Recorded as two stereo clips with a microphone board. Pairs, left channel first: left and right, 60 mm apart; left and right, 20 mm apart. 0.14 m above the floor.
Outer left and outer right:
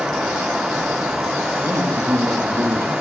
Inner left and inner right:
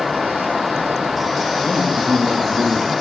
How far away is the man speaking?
About 4 m.